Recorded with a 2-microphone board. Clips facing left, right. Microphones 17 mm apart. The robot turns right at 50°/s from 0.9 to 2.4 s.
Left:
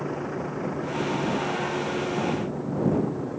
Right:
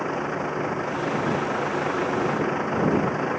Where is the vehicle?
150° right; by 3.4 s 75° right.